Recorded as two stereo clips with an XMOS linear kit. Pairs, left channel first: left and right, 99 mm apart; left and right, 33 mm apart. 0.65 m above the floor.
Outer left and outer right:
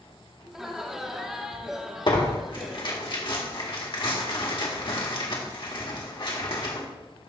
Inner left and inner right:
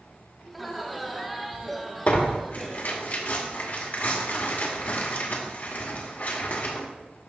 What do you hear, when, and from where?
0.5 s laughter: 5° right (ahead or behind), 1.2 m
2.1 s tearing paper: 55° left (ahead or behind), 1.7 m